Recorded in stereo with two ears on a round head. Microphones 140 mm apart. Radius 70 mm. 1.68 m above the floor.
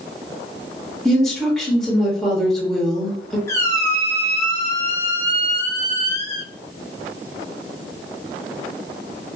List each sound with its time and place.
1.1 s a woman speaking: 5° left (ahead or behind), 0.7 m
3.5 s a squeak: 20° left (ahead or behind), 0.6 m